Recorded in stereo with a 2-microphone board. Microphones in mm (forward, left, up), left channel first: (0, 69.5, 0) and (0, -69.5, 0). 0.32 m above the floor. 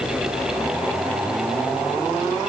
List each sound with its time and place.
Only background noise.